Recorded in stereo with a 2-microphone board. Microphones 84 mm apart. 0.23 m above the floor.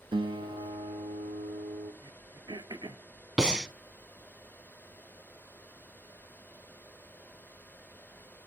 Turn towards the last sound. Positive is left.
turn(degrees=-10)  # may be behind; listen again after turning